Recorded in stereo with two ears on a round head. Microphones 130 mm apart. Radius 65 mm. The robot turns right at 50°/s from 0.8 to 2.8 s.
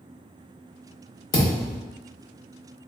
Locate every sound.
1.3 s a thud: 30° left (ahead or behind), 0.9 m; by 1.8 s 20° left (ahead or behind), 0.9 m